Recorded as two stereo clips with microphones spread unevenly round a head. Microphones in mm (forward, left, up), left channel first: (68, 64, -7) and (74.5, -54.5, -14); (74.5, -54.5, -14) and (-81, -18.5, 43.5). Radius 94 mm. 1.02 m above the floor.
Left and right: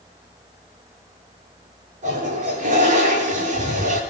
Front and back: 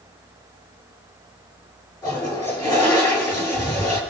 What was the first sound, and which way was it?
A toilet flushing, 80° right.